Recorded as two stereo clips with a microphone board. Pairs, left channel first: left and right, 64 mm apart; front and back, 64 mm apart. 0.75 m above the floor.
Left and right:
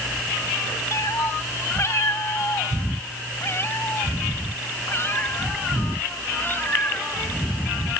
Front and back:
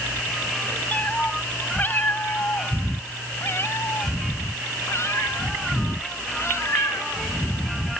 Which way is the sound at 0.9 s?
65° left.